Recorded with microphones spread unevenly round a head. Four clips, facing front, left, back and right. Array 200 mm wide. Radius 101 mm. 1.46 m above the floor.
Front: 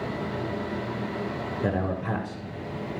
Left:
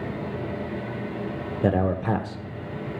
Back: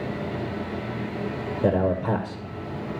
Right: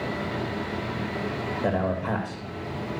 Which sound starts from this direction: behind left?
A man speaking, at 1.6 s.